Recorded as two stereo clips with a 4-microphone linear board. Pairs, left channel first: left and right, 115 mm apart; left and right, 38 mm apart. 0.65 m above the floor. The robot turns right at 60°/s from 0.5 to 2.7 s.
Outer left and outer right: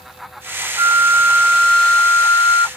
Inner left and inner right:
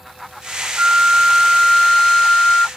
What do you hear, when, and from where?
0.8 s a flute: 50° right; by 2.7 s 65° left